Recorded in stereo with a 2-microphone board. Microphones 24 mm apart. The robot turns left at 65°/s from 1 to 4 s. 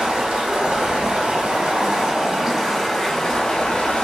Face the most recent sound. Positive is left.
turn(degrees=105)